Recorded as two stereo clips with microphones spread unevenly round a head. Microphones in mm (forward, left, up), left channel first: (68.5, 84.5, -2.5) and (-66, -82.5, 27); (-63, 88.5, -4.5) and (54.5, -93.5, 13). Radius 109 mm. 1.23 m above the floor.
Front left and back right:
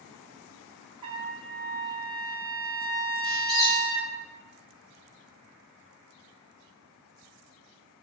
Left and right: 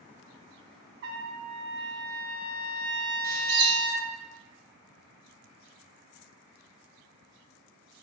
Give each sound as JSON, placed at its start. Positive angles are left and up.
{"t": 1.0, "sound": "a trumpet", "azimuth_deg": -65, "distance_m": 0.6}
{"t": 3.2, "sound": "a squeak", "azimuth_deg": -45, "distance_m": 1.5}